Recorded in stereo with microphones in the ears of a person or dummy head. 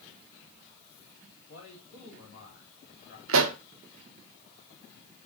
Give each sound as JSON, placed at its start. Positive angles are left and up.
{"t": 1.5, "sound": "a man speaking", "side_deg": 50, "distance_m": 4.5}
{"t": 3.3, "sound": "a pop", "side_deg": -75, "distance_m": 1.0}